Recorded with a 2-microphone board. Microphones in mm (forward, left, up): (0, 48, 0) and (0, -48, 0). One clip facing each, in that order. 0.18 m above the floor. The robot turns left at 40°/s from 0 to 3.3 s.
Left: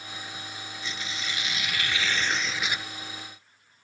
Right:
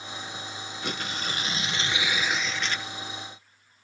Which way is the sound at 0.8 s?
115° right.